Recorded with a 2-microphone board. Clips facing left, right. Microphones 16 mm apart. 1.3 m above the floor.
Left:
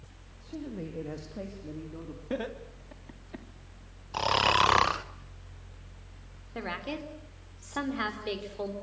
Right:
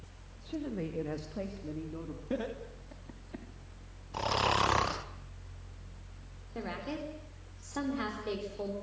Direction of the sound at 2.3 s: 25° left (ahead or behind).